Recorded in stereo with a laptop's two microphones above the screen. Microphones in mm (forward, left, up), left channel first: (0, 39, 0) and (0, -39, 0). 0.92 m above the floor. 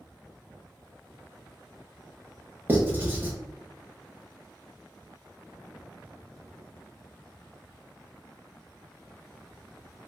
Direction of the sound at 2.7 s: 25° right (ahead or behind).